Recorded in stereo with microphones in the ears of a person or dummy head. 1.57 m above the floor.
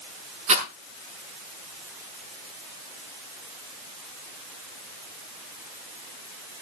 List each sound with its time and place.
0.5 s a rattle: 35° right (ahead or behind), 4.5 m